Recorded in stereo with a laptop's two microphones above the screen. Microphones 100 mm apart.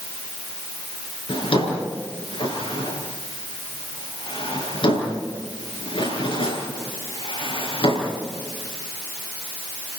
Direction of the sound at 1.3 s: 65° left (ahead or behind).